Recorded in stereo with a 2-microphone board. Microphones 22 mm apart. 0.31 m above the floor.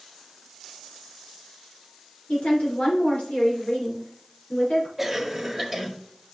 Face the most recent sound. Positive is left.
turn(degrees=-10)  # may be behind; listen again after turning